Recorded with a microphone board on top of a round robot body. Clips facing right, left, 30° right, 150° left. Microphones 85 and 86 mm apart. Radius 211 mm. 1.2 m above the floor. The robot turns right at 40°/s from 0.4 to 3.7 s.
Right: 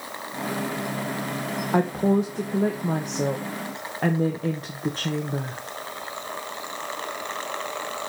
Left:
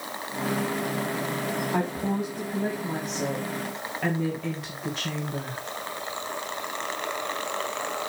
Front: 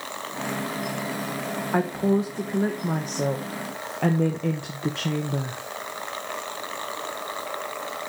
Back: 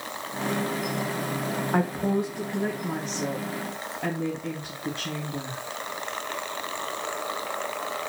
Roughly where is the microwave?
I don't hear a microwave.